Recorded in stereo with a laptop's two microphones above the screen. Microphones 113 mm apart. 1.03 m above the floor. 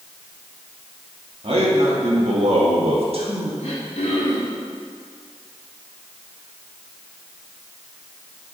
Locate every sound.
1.4 s a man speaking: 60° right (ahead or behind), 2.5 m; by 3.5 s 50° right (ahead or behind), 1.8 m
3.6 s throat clearing: 75° left (ahead or behind), 2.5 m